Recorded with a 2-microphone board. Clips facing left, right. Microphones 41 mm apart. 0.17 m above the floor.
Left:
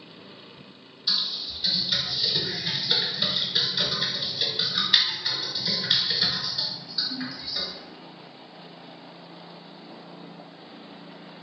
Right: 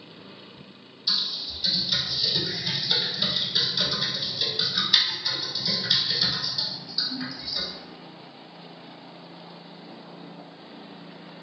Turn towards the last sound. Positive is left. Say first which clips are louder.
# even
turn(degrees=20)  # may be behind; listen again after turning